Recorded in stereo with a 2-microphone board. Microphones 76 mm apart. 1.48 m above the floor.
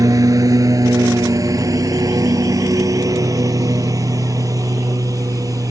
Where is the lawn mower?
50° right (ahead or behind).